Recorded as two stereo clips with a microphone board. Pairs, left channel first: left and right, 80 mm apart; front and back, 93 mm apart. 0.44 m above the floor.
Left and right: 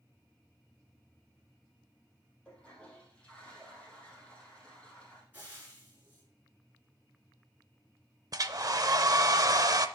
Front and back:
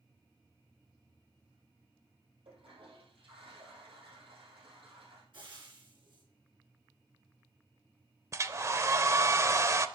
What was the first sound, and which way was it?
A toilet flushing, 170° left.